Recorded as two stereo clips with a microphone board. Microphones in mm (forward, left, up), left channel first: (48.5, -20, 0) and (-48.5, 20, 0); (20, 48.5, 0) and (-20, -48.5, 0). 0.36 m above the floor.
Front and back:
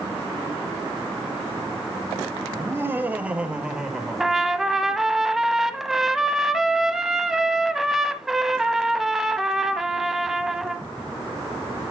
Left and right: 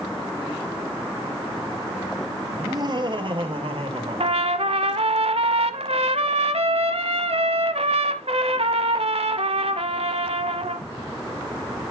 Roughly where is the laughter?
Behind right.